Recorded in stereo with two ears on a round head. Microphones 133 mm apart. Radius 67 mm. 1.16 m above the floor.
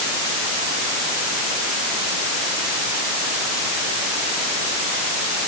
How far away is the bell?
No bell in this recording.